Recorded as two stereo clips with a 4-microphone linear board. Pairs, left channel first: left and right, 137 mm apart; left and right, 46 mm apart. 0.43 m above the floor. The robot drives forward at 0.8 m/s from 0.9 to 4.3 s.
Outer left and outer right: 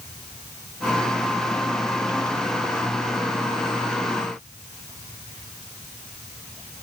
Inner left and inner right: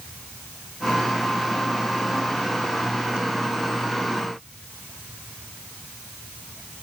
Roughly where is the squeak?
I don't hear a squeak.